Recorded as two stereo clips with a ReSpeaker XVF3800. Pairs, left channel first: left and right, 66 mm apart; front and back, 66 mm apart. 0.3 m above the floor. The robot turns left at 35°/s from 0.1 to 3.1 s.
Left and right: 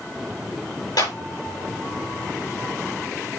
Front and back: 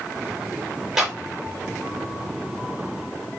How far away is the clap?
About 7 m.